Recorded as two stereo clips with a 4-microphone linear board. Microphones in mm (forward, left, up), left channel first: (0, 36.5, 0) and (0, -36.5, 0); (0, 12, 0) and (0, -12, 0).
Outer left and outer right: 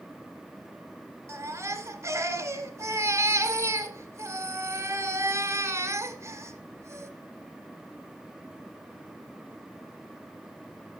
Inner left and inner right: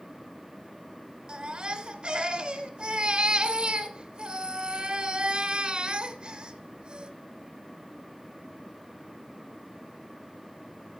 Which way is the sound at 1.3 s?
40° right (ahead or behind).